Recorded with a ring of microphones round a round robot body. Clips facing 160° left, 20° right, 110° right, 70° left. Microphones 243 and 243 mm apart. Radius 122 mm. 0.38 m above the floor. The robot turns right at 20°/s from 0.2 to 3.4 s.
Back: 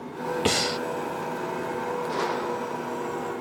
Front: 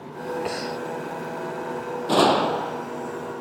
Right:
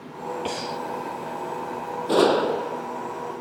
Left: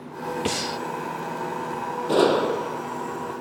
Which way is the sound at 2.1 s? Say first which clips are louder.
Front 8 dB, even; 25° right.